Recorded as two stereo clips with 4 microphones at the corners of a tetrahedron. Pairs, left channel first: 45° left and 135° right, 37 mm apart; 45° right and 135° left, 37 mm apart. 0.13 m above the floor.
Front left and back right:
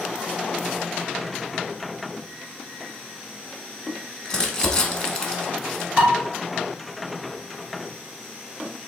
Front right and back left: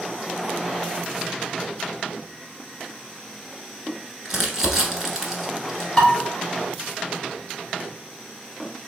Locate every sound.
4.2 s crumpling: 75° left, 0.9 m
6.0 s dishes clattering: 110° right, 1.5 m